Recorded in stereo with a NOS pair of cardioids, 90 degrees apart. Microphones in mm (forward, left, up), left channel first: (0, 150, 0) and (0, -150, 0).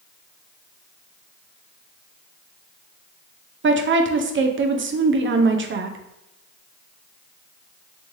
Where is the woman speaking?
40° right, 0.7 m.